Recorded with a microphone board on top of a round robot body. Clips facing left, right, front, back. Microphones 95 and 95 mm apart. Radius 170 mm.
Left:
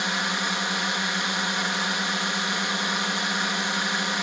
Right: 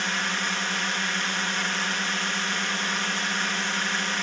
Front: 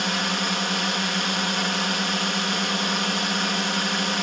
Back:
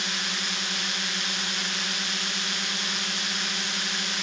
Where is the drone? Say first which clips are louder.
Left 1 dB, front 8 dB; 15° left.